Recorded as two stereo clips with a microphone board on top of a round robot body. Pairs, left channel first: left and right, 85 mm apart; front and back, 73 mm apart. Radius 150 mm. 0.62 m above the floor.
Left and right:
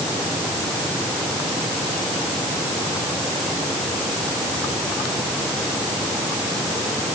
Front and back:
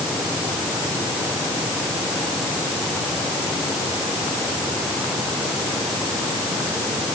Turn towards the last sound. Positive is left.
No sound to turn to.